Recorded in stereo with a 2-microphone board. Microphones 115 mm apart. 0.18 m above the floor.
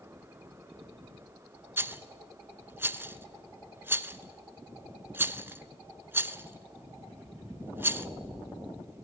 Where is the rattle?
20° right (ahead or behind), 0.5 m.